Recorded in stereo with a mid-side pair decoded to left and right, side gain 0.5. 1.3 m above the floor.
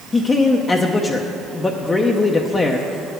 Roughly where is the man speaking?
Ahead left.